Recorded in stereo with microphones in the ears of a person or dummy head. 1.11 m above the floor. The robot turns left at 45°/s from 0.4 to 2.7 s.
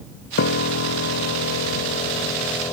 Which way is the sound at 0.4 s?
130° left.